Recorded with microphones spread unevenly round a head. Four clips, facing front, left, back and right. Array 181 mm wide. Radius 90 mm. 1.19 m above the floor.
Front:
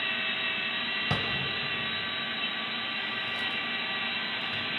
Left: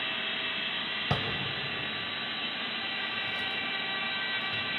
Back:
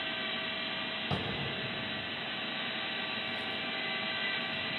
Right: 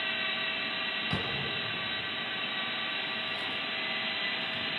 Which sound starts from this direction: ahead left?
A drawer, at 1.1 s.